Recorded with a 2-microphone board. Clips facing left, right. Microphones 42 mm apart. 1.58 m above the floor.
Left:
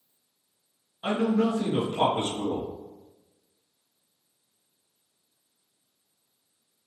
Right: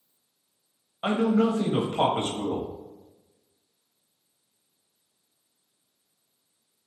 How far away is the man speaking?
About 0.9 m.